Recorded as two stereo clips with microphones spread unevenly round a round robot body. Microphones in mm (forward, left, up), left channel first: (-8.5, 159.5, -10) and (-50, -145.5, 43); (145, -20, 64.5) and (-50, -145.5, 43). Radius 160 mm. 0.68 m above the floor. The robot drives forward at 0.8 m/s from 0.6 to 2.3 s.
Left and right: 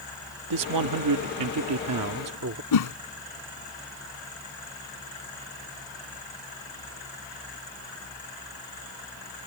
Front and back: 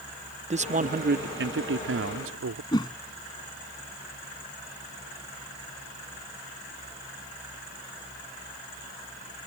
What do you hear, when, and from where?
0.5 s a man speaking: 100° right; by 2.6 s 140° right
2.7 s a whoosh: 110° left